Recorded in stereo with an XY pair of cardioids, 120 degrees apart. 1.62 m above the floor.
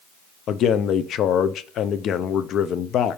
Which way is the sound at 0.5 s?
60° left.